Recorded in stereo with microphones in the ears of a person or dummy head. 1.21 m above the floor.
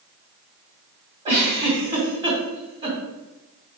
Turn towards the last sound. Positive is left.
turn(degrees=-25)  # may be behind; listen again after turning